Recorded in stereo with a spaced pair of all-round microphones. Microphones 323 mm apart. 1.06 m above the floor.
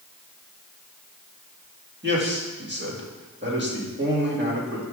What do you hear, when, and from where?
2.0 s a man speaking: 35° right (ahead or behind), 1.9 m